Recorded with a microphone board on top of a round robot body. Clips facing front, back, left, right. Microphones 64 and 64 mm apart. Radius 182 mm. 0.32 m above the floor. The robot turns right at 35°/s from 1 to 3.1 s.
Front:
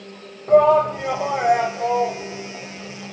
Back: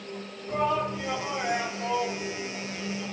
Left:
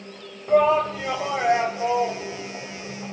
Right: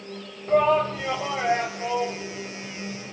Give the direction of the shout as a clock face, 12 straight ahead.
12 o'clock.